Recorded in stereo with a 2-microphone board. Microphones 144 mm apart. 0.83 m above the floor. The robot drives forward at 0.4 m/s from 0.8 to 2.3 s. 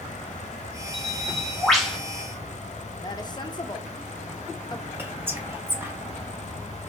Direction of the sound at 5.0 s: 15° right (ahead or behind).